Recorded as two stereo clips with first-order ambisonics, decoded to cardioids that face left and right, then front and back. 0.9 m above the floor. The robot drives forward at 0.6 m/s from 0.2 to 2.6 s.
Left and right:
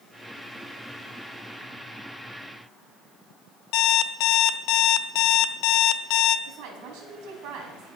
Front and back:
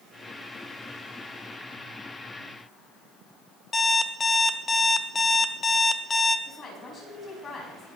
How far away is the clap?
I don't hear a clap.